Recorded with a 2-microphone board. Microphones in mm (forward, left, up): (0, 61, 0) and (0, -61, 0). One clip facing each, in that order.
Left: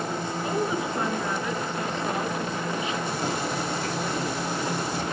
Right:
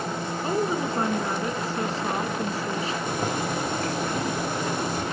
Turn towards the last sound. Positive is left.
turn(degrees=-50)  # may be behind; listen again after turning